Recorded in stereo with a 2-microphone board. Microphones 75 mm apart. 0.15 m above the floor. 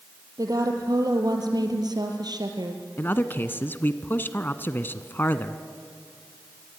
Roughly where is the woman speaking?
Right.